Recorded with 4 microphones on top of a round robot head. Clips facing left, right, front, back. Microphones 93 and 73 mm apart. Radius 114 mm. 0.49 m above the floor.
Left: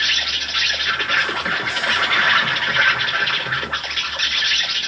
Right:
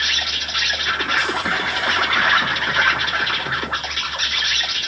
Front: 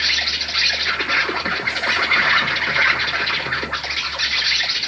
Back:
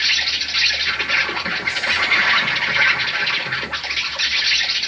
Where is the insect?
45° right, 1.9 m.